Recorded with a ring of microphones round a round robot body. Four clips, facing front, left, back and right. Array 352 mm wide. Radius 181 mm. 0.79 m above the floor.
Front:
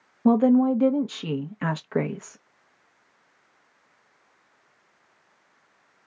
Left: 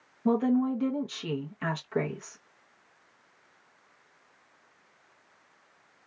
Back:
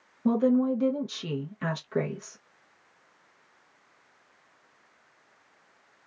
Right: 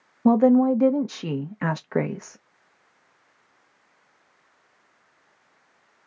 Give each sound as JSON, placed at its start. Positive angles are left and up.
{"t": 0.2, "sound": "a woman speaking", "azimuth_deg": -60, "distance_m": 0.5}